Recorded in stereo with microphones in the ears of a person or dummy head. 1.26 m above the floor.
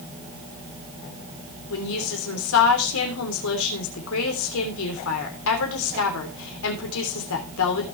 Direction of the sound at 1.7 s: 75° left (ahead or behind).